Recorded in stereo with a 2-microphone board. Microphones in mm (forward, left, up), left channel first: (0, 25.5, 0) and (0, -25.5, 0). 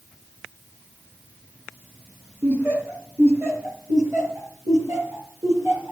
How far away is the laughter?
About 3 m.